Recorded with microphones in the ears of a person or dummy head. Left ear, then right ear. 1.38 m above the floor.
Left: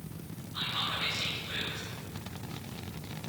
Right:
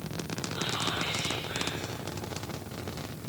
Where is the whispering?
25° left (ahead or behind), 6 m.